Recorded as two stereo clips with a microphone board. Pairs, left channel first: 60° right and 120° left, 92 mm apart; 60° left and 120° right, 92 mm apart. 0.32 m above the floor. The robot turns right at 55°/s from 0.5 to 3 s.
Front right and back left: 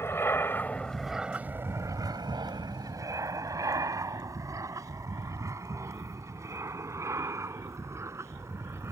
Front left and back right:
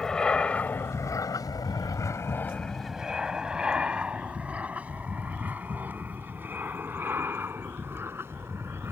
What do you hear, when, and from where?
0.0 s an aircraft: 20° right; by 8.9 s straight behind